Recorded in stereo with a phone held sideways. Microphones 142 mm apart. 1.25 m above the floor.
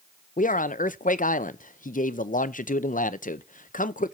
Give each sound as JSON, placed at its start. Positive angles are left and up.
{"t": 0.4, "sound": "a man speaking", "side_deg": 70, "distance_m": 0.6}